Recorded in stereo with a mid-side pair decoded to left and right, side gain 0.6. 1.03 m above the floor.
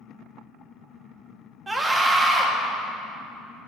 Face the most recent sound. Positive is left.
turn(degrees=-20)